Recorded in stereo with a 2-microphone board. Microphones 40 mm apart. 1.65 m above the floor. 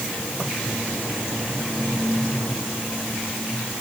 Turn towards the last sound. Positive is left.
No sound to turn to.